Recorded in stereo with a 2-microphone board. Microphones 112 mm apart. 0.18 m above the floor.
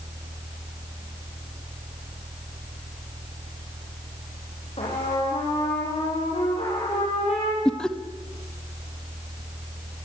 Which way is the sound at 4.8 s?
65° left (ahead or behind).